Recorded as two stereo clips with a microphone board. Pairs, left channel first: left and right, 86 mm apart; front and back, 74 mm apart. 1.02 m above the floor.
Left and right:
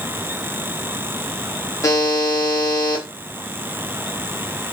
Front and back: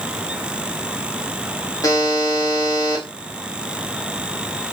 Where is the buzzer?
40° left, 1.0 m.